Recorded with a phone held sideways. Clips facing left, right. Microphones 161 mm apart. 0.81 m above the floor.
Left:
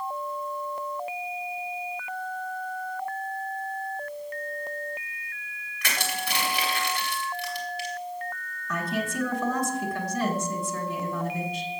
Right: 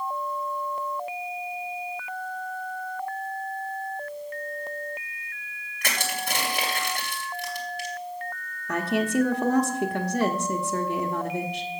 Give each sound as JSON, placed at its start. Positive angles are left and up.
{"t": 5.8, "sound": "crushing", "side_deg": -50, "distance_m": 2.5}
{"t": 8.7, "sound": "a woman speaking", "side_deg": -65, "distance_m": 1.3}